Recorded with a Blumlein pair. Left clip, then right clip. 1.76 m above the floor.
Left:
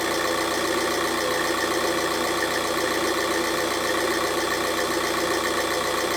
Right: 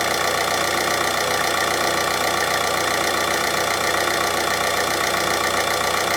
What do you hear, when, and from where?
0.0 s an engine running: 70° right, 1.4 m